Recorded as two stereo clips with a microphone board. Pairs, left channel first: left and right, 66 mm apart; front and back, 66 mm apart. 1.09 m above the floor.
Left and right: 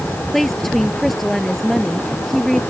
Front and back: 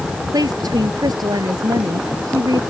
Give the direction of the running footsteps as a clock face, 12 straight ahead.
No running footsteps in this recording.